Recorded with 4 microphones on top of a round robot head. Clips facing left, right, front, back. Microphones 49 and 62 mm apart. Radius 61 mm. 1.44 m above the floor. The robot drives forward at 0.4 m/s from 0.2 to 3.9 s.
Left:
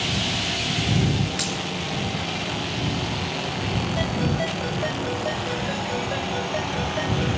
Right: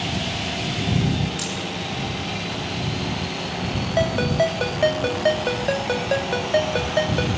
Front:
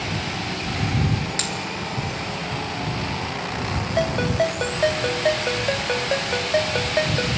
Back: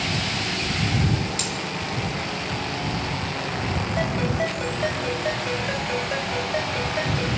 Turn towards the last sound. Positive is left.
turn(degrees=-55)